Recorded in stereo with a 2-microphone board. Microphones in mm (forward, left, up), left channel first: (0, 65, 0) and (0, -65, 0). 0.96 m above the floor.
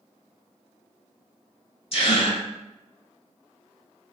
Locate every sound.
1.9 s a gasp: 55° left (ahead or behind), 1.8 m